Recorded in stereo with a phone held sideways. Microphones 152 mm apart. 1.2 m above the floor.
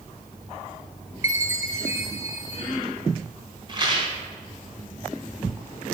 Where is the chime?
20° right (ahead or behind), 3 m.